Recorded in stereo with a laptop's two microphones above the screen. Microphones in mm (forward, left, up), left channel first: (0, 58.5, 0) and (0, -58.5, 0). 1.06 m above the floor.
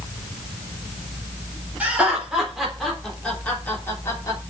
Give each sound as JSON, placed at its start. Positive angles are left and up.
{"t": 1.8, "sound": "laughter", "side_deg": -10, "distance_m": 4.0}